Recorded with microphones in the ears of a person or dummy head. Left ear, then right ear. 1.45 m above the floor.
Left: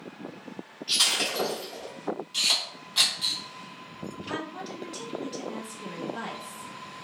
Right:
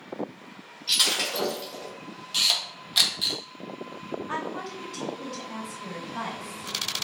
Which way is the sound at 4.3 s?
10° left (ahead or behind).